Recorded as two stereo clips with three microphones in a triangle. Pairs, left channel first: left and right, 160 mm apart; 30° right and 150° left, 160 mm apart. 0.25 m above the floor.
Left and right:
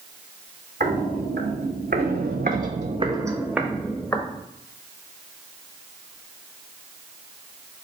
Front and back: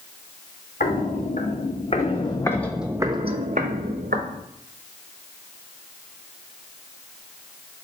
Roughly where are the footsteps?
Ahead right.